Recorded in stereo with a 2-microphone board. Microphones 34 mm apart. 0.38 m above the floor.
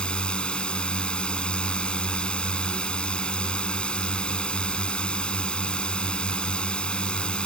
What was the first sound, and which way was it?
A drone, 30° left (ahead or behind).